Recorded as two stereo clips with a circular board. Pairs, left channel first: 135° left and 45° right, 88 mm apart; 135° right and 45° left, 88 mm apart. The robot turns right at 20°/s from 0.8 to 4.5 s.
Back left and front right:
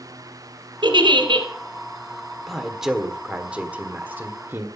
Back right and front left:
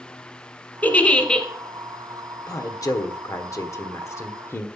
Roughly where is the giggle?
Ahead right.